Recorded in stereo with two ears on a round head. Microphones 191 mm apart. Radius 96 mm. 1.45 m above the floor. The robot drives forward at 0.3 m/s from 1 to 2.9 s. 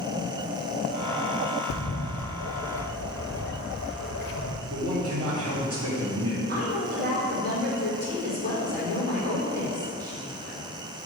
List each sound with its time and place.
1.7 s a bird: 75° left (ahead or behind), 0.6 m; by 4.6 s 60° left (ahead or behind), 0.6 m
4.7 s a man speaking: 75° right (ahead or behind), 2.0 m
6.5 s a woman speaking: 45° right (ahead or behind), 2.5 m